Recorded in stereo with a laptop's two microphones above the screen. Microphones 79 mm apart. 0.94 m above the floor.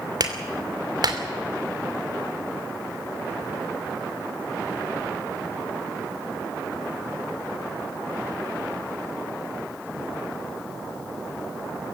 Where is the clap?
60° right (ahead or behind), 2.5 m.